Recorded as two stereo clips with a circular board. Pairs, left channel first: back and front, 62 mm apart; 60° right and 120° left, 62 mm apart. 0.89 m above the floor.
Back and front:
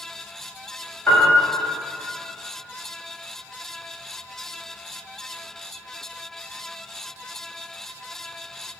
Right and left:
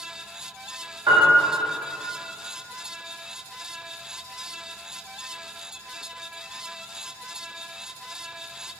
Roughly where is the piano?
Behind left.